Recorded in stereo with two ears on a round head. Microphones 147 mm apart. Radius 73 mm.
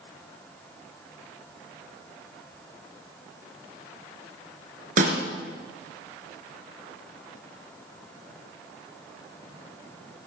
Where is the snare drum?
50° right (ahead or behind), 3 m.